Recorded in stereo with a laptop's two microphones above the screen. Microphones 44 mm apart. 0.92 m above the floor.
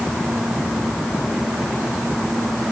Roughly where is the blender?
No blender in this recording.